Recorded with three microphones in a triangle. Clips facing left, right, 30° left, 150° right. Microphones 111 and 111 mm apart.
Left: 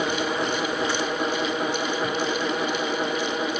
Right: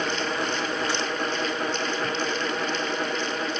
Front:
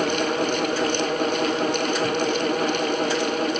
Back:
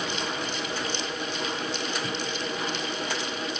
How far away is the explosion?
No explosion in this recording.